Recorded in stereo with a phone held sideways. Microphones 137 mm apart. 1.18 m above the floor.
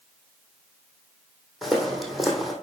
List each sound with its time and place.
1.6 s footsteps: centre (ahead or behind), 2 m